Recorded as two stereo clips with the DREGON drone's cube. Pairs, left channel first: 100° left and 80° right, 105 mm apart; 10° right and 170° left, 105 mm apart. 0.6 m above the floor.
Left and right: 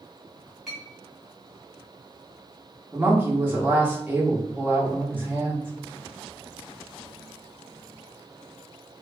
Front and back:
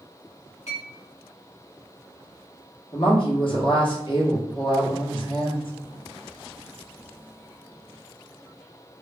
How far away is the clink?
About 1.9 m.